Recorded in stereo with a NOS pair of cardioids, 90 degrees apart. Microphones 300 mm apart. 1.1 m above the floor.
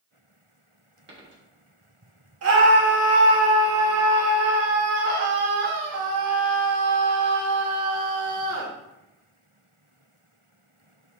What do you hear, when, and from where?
1.1 s a dropped coin: 40° right, 1.4 m
2.4 s a scream: 55° right, 1.8 m